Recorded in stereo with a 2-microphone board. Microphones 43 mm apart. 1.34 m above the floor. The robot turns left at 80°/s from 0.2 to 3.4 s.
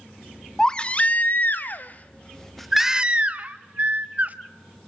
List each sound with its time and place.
0.6 s a baby crying: 165° left, 0.9 m; by 4.3 s 60° right, 0.9 m